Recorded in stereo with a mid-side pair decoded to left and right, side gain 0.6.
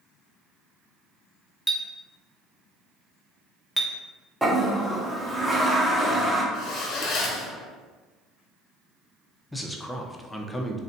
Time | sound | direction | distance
1.7 | a clink | 5° left | 0.6 m
4.4 | a toilet flushing | 5° right | 0.6 m
6.5 | a zipper | 55° left | 0.6 m
9.5 | a man speaking | 10° left | 0.5 m